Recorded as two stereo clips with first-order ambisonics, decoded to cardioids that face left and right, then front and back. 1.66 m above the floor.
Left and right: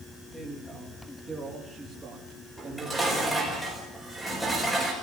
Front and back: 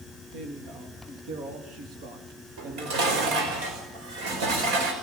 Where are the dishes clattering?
175° right, 5 m.